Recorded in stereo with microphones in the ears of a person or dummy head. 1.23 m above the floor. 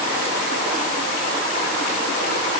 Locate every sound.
Only background noise.